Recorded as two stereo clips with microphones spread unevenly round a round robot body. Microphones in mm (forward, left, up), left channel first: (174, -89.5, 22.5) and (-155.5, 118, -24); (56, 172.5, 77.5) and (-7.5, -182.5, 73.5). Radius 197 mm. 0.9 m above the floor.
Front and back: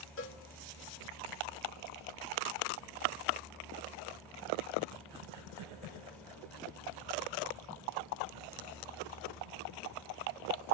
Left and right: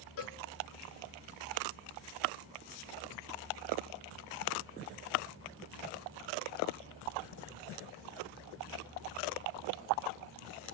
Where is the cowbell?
30° left, 1.4 m.